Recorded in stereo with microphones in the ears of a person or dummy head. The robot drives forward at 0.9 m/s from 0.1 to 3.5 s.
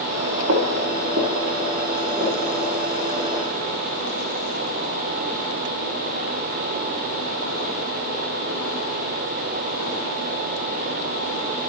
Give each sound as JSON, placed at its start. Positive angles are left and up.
{"t": 0.5, "sound": "footsteps", "side_deg": -65, "distance_m": 4.5}